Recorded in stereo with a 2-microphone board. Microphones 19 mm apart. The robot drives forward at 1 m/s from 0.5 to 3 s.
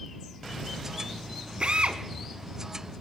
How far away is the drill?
About 1.9 m.